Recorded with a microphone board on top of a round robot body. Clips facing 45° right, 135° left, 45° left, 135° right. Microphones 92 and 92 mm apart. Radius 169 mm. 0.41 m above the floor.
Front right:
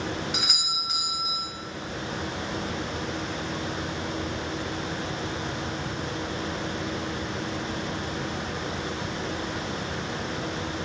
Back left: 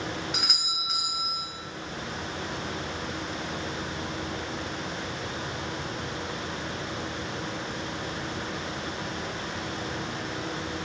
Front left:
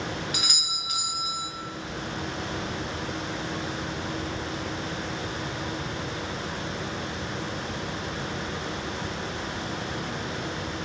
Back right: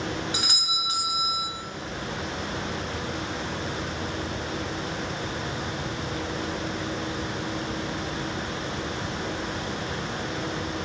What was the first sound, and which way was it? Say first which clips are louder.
A doorbell: front right 2 dB, back right 3 dB; 135° right.